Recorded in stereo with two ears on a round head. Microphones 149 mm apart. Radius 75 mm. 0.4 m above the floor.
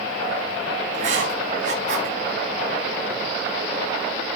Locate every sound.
0.9 s writing: 45° right (ahead or behind), 7 m